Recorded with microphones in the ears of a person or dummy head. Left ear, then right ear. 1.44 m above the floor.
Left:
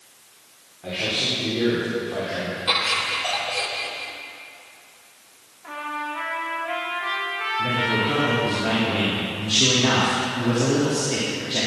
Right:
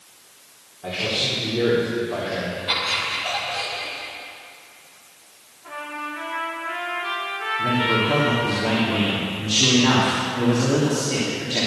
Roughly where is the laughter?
Left.